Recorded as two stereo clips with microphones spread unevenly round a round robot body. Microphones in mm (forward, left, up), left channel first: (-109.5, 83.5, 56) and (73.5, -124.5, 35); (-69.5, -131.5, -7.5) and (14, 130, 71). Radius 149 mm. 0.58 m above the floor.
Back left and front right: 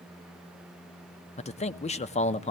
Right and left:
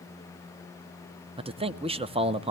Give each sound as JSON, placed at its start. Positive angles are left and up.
{"t": 1.4, "sound": "a man speaking", "azimuth_deg": 155, "distance_m": 0.6}